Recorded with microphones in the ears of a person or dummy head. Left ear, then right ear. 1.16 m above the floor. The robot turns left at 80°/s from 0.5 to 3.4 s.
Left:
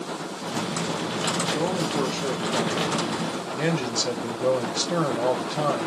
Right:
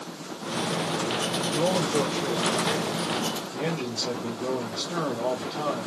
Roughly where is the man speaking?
Behind right.